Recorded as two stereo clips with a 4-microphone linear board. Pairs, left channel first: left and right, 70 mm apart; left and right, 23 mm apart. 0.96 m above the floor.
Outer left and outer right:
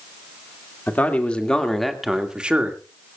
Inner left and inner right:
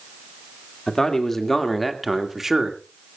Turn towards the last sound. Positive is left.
turn(degrees=-25)  # may be behind; listen again after turning